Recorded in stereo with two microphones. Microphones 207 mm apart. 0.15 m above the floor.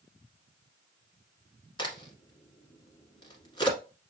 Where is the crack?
20° left (ahead or behind), 1.5 m.